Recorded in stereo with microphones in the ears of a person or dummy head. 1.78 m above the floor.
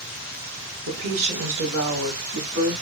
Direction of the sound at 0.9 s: 65° right (ahead or behind).